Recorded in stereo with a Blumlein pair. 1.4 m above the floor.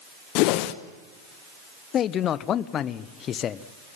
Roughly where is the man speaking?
Ahead left.